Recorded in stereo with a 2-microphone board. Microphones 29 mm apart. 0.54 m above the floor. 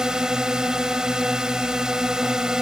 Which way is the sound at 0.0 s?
25° right (ahead or behind).